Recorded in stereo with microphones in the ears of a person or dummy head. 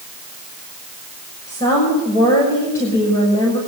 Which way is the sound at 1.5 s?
15° left (ahead or behind).